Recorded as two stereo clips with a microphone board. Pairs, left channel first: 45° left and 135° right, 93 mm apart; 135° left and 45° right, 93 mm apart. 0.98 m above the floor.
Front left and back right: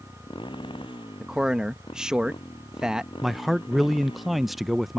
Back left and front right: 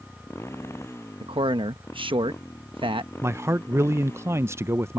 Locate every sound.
0.0 s a motorcycle: 75° left
1.2 s a man speaking: 55° right
3.2 s a man speaking: 50° right